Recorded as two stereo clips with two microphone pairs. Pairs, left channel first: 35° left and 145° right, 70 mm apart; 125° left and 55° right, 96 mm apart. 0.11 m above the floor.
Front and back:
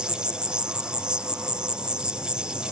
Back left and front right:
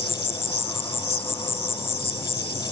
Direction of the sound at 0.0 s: 135° left.